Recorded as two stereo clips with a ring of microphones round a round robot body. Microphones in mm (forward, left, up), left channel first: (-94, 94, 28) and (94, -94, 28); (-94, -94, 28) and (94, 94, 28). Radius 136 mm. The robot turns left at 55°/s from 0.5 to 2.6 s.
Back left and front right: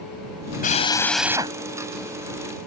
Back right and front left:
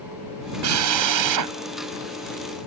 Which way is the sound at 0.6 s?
75° left.